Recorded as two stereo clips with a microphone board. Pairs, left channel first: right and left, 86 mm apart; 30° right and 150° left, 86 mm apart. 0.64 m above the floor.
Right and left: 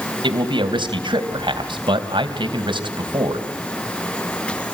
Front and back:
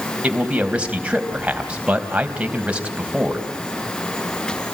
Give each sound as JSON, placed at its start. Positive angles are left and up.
{"t": 0.2, "sound": "a man speaking", "azimuth_deg": 75, "distance_m": 3.5}